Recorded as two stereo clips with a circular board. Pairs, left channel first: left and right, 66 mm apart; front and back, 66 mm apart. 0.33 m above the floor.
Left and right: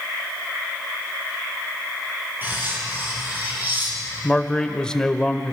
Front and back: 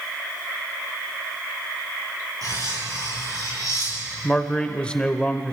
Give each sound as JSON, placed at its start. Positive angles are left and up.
{"t": 2.4, "sound": "cutlery clinking", "azimuth_deg": -150, "distance_m": 5.5}
{"t": 4.2, "sound": "a man speaking", "azimuth_deg": 35, "distance_m": 0.9}